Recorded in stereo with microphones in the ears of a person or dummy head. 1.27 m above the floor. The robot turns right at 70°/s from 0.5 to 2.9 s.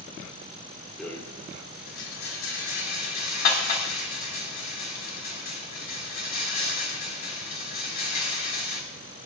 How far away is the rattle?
About 2.5 m.